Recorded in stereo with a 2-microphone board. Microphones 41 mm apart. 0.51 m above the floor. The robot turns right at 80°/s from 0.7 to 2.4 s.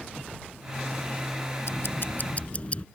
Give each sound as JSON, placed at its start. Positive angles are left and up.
{"t": 1.6, "sound": "ticking", "azimuth_deg": 90}